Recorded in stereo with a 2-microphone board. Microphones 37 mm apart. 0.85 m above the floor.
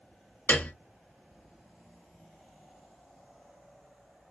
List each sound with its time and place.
0.5 s a piano: 50° left (ahead or behind), 1.2 m